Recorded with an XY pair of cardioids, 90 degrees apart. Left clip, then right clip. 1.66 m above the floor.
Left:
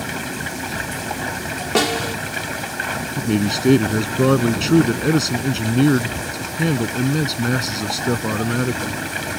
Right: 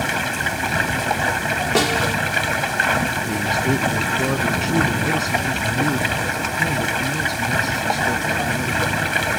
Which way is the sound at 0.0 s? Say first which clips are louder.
Right 5 dB; 50° right.